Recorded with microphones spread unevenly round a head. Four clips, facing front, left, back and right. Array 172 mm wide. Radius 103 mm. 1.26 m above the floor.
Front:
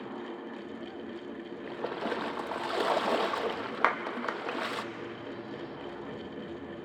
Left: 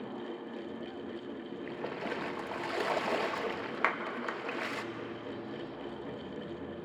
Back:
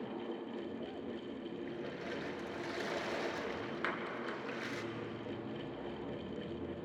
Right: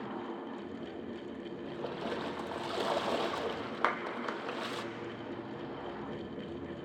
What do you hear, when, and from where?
1.6 s a splash: 10° left, 0.9 m
3.8 s a clap: straight ahead, 1.0 m